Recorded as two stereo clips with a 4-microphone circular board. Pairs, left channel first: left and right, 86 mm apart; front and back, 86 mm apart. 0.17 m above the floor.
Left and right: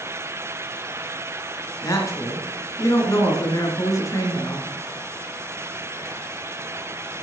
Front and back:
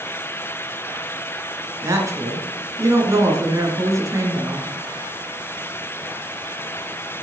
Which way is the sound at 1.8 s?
135° left.